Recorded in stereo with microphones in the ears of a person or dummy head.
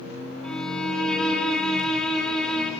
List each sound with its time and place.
0.4 s a violin: centre (ahead or behind), 4 m